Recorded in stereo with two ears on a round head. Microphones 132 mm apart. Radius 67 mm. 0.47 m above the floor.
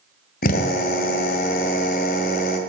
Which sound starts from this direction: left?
A drill, at 0.4 s.